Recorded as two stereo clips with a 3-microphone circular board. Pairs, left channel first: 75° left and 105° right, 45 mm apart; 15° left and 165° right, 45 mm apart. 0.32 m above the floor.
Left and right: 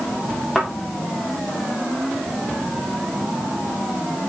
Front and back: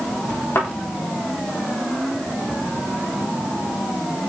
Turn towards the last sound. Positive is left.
turn(degrees=-15)